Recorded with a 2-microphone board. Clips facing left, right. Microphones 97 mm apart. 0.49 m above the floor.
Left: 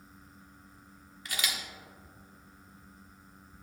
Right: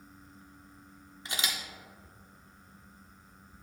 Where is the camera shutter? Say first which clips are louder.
Even; 25° right (ahead or behind), 1.0 m.